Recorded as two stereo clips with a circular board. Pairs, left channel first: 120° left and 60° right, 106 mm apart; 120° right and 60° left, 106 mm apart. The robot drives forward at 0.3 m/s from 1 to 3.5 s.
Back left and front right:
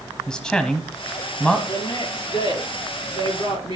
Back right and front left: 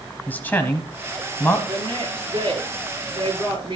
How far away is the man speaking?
About 1.0 m.